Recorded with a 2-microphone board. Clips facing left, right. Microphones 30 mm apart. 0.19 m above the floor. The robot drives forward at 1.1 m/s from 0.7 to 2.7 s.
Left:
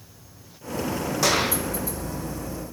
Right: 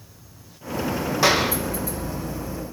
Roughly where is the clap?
Right.